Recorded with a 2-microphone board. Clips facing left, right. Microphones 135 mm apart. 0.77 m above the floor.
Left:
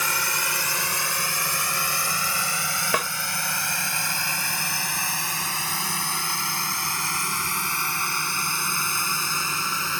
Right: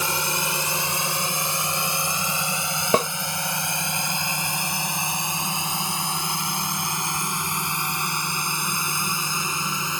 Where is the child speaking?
No child speaking in this recording.